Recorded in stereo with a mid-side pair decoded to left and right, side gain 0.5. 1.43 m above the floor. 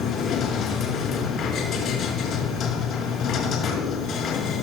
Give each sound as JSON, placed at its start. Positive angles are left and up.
{"t": 0.0, "sound": "a machine running", "azimuth_deg": 60, "distance_m": 5.5}